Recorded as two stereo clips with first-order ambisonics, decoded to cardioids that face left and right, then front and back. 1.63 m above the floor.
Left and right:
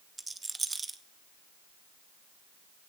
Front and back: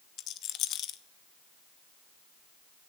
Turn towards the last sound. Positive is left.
turn(degrees=-15)